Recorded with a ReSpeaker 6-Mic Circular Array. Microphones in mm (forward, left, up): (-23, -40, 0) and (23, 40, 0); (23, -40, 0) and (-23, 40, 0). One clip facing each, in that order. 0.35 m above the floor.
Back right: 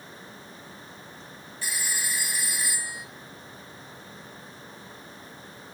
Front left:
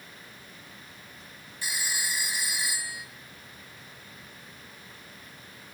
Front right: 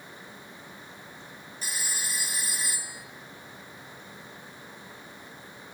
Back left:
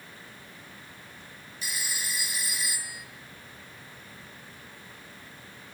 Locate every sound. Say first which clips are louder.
1.6 s a phone ringing: even, even; 10° right, 2.0 m